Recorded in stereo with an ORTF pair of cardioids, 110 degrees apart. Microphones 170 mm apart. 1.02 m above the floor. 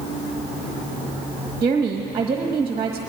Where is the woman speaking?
30° right, 1.2 m.